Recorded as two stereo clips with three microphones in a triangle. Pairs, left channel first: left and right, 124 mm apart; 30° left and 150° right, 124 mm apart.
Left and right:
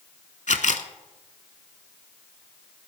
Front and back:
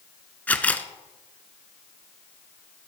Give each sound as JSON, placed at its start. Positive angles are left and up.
{"t": 0.5, "sound": "a camera shutter", "azimuth_deg": 105, "distance_m": 0.7}